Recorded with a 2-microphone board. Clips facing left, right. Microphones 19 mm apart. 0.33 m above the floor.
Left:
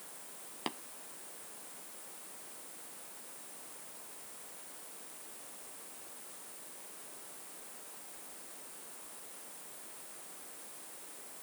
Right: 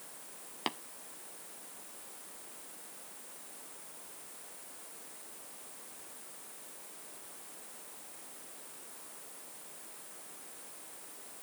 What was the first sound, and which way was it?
Tapping, 15° right (ahead or behind).